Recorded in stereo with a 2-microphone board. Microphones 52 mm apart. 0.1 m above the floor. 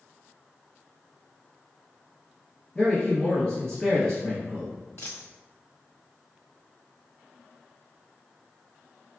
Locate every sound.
2.8 s a man speaking: 15° left (ahead or behind), 1.7 m
5.0 s a dropped coin: 60° left (ahead or behind), 1.6 m